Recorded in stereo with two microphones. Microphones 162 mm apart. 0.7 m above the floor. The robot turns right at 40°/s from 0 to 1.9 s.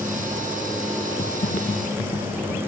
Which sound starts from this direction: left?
Typing on a keyboard, at 1.2 s.